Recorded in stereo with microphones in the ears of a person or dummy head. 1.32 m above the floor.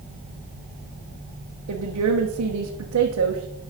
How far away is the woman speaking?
About 1.0 m.